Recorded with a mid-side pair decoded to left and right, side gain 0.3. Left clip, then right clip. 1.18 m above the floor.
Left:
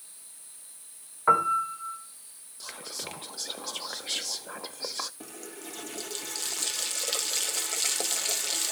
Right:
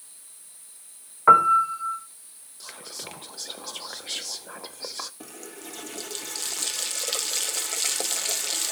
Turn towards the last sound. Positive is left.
turn(degrees=-20)